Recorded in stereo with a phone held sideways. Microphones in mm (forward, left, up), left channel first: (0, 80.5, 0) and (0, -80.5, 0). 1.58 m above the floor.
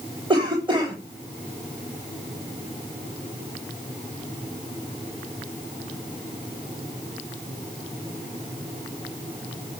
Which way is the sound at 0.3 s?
30° right (ahead or behind).